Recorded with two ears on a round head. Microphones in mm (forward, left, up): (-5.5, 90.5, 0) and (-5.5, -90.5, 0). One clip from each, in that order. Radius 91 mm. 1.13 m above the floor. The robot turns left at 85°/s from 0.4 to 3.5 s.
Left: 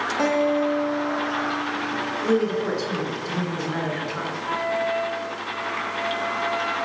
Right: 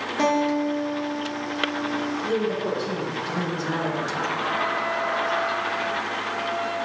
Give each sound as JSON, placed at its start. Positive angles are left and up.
{"t": 0.2, "sound": "a guitar", "azimuth_deg": -20, "distance_m": 1.7}
{"t": 2.2, "sound": "a woman speaking", "azimuth_deg": 100, "distance_m": 3.0}
{"t": 4.4, "sound": "a flute", "side_deg": 55, "distance_m": 3.0}